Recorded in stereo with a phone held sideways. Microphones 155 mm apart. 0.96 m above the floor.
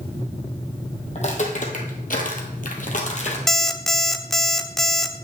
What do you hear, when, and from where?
1.1 s footsteps: 45° left (ahead or behind), 2.5 m
3.5 s an alarm clock: centre (ahead or behind), 0.7 m